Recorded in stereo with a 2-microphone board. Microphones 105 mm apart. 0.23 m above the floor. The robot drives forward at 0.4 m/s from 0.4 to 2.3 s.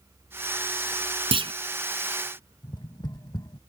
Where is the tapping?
45° left (ahead or behind).